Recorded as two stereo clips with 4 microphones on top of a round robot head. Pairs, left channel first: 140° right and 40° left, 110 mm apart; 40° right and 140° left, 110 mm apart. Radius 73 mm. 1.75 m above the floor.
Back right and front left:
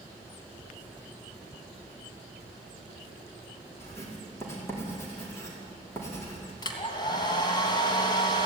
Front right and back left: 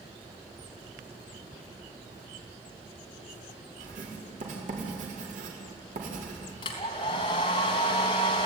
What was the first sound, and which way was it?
Writing, 150° left.